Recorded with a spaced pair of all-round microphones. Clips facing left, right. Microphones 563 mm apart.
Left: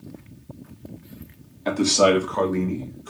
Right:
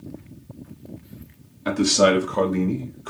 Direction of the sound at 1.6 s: 35° right (ahead or behind).